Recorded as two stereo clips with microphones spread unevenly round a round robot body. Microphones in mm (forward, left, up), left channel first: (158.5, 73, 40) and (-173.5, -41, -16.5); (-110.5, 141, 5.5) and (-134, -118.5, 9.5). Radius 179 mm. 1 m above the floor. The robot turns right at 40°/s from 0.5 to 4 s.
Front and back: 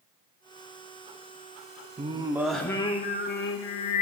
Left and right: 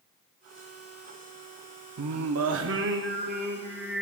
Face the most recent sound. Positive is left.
turn(degrees=-5)